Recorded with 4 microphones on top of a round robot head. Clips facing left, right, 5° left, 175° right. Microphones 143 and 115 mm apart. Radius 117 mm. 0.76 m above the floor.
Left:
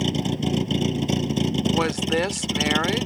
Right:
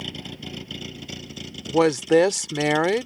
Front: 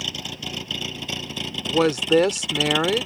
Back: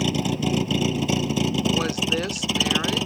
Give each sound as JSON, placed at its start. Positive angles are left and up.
{"t": 0.0, "sound": "a vehicle", "azimuth_deg": 140}
{"t": 1.7, "sound": "a woman speaking", "azimuth_deg": -45}